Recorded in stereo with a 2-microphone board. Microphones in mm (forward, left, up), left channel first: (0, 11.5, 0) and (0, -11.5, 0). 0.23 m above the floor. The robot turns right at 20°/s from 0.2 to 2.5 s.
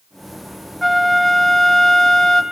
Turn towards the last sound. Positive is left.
turn(degrees=45)